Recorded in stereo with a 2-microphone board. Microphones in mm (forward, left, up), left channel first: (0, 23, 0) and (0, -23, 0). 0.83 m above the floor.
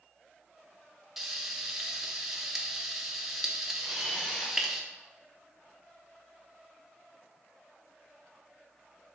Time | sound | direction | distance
1.2 | frying | 5° right (ahead or behind) | 0.5 m
3.8 | a camera shutter | 10° left (ahead or behind) | 1.9 m